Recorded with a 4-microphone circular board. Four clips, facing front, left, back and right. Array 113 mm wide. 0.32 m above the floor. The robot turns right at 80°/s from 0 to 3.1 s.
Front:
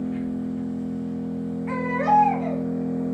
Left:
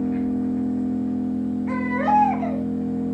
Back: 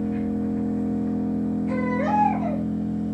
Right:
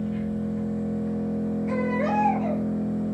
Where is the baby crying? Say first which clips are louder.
Left 5 dB, front 5 dB; 35° left, 1.1 m; by 2.6 s 115° left, 1.1 m.